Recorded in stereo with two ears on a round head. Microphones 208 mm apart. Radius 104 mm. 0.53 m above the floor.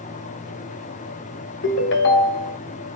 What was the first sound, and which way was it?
A ringtone, 50° left (ahead or behind).